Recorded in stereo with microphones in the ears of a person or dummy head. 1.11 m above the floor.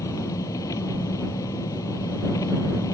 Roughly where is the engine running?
Centre.